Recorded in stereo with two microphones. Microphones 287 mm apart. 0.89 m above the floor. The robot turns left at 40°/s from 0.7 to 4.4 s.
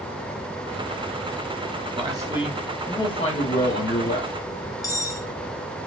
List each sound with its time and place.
1.9 s a man speaking: 155° right, 1.3 m; by 4.3 s 110° left, 1.3 m
4.8 s cutlery clinking: 10° left (ahead or behind), 0.6 m